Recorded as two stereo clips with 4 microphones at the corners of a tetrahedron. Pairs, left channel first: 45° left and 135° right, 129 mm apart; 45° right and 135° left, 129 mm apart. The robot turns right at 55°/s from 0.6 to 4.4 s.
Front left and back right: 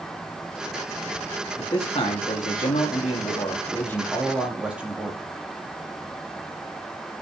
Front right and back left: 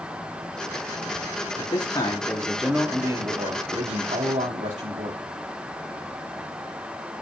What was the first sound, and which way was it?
A man speaking, 10° right.